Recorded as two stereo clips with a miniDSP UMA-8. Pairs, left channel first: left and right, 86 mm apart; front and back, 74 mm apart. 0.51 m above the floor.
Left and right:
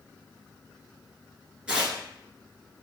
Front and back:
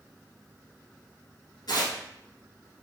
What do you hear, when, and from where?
1.7 s tearing paper: 15° right, 1.3 m